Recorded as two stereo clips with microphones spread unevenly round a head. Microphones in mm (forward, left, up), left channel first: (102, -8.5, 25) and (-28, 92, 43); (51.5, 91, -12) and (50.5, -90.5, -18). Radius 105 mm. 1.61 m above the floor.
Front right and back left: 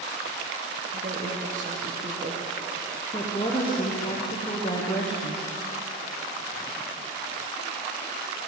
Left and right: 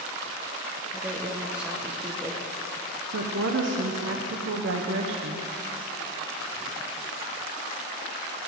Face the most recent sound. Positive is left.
turn(degrees=-110)